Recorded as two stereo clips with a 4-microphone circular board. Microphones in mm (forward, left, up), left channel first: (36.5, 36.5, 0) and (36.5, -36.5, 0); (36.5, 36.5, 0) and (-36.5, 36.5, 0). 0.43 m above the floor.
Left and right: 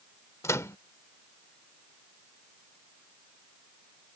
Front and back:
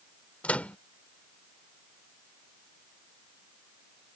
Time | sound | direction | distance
0.4 | a microwave | 65° left | ?